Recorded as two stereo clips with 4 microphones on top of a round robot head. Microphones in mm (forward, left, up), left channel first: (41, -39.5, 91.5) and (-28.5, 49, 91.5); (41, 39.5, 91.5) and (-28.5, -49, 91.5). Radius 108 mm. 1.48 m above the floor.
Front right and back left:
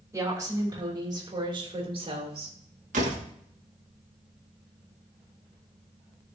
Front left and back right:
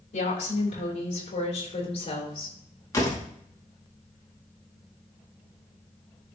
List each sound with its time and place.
0.1 s a woman speaking: 60° left, 3 m; by 2.6 s 95° left, 2.5 m
2.9 s a door slam: 115° left, 2.0 m